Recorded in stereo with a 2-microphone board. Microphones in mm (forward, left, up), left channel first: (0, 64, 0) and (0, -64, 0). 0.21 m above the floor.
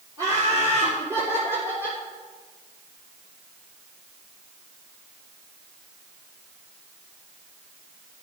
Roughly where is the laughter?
Right.